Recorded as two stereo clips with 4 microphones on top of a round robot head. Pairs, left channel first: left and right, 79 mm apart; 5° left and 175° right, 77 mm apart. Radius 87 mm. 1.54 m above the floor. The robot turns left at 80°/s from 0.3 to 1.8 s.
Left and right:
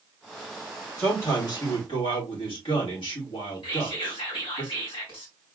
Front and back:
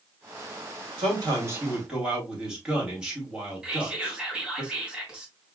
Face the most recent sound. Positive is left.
turn(degrees=110)